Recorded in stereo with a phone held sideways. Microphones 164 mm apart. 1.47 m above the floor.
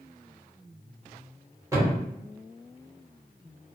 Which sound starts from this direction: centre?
A thud, at 1.7 s.